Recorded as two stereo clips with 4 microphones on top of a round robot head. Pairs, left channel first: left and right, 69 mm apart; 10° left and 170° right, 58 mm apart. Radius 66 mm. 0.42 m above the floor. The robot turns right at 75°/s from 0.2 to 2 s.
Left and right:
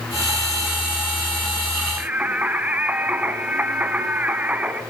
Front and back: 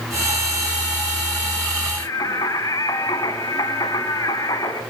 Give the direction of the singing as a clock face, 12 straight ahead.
1 o'clock.